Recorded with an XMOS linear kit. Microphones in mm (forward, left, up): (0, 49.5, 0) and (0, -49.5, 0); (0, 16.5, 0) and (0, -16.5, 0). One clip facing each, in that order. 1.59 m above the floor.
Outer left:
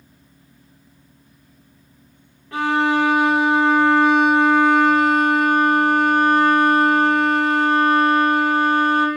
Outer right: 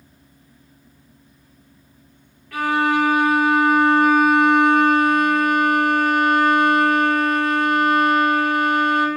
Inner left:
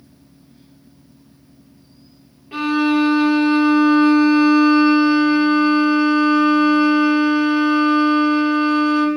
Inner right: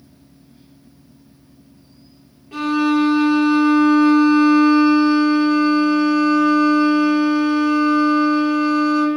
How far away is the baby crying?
I don't hear a baby crying.